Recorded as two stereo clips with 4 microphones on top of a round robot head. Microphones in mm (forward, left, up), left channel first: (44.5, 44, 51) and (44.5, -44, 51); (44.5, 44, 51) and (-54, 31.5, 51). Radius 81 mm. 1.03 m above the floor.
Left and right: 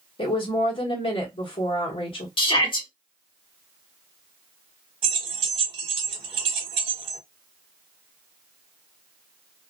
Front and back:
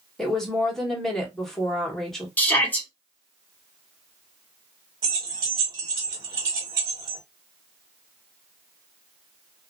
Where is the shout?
80° left, 1.6 m.